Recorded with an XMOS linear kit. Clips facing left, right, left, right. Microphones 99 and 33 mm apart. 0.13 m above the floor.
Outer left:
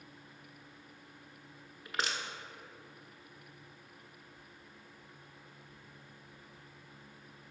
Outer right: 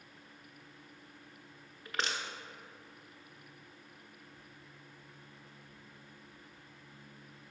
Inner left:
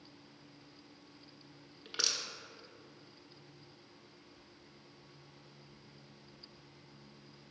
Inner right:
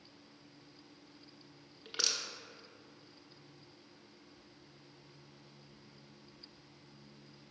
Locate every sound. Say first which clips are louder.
1.9 s crushing: even, even; 5° left (ahead or behind), 0.9 m